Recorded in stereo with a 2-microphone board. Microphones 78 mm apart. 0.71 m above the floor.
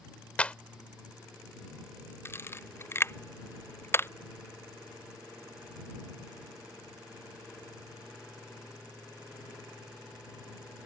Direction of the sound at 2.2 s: 30° left (ahead or behind).